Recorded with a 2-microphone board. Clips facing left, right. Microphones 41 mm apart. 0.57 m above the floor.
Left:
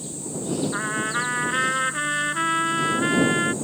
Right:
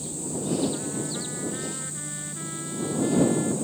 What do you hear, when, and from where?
0.7 s a trumpet: 85° left